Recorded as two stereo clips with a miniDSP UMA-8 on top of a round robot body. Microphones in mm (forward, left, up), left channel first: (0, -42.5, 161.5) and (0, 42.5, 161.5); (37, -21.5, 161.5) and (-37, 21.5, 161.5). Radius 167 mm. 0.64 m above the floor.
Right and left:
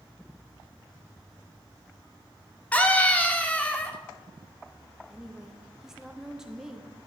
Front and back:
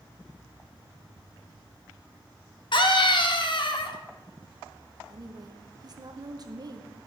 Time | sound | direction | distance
2.7 | a scream | 15° right | 2 m
5.1 | a woman speaking | 175° left | 1.6 m